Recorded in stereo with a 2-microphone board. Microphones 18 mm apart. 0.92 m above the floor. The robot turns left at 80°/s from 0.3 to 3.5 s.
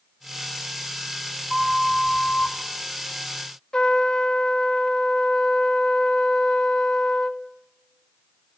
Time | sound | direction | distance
1.5 | a flute | 155° right | 3 m
3.7 | a trumpet | 45° left (ahead or behind) | 1.2 m